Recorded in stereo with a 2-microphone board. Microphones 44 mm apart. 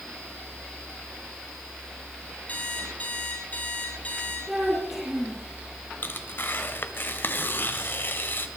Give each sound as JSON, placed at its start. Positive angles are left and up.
{"t": 2.5, "sound": "an alarm clock", "side_deg": 35, "distance_m": 5.0}
{"t": 4.5, "sound": "a child speaking", "side_deg": -5, "distance_m": 5.0}
{"t": 6.0, "sound": "tearing paper", "side_deg": 50, "distance_m": 1.3}